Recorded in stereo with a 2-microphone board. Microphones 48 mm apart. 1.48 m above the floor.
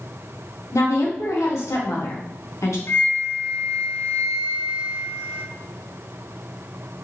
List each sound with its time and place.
0.7 s a woman speaking: 75° left (ahead or behind), 1.3 m
2.9 s a flute: 55° left (ahead or behind), 0.6 m